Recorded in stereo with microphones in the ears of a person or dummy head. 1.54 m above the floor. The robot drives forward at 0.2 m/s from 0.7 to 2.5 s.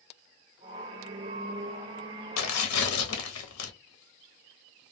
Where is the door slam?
I don't hear a door slam.